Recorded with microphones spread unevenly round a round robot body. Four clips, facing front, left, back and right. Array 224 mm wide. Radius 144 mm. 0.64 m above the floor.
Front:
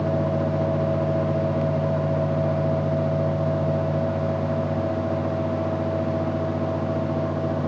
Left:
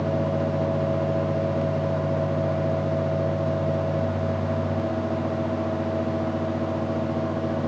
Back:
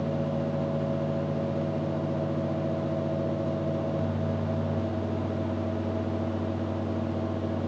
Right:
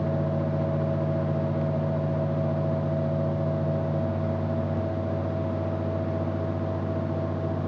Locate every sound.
Only background noise.